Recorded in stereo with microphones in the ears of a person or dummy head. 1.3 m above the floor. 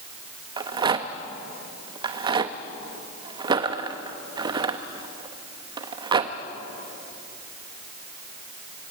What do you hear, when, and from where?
0.6 s a rattle: 25° right (ahead or behind), 0.7 m